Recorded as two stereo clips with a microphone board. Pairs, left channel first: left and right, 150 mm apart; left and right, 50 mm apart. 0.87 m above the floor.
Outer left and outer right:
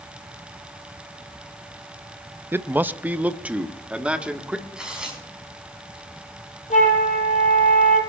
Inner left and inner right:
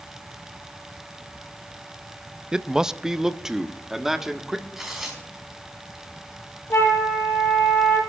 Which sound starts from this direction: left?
A flute, at 6.7 s.